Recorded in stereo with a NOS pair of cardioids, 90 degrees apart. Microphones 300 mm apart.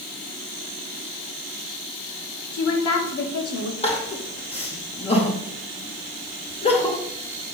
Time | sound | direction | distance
2.5 | a woman speaking | 70° left | 2.5 m
3.8 | crying | 20° left | 2.5 m